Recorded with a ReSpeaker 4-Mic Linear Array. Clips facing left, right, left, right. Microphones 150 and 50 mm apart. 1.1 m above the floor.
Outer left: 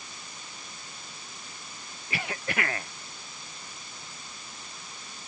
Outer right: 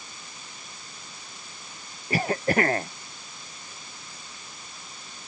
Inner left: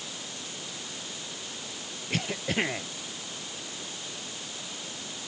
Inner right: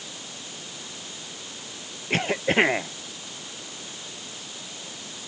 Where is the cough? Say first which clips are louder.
Outer right 10 dB, inner right 8 dB; 40° right (ahead or behind).